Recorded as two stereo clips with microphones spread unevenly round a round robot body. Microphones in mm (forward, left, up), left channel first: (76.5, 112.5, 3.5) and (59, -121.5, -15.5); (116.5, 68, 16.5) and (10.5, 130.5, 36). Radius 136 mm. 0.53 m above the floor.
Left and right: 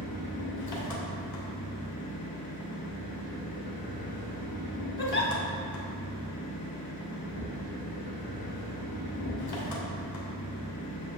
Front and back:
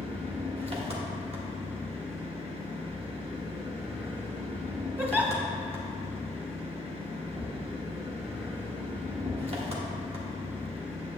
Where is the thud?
120° left, 2.5 m.